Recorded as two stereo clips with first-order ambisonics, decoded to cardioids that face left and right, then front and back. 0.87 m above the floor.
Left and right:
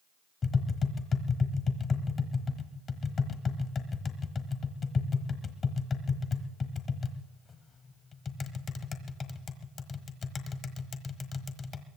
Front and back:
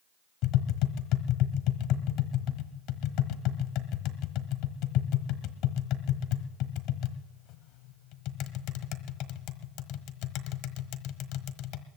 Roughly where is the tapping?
Ahead left.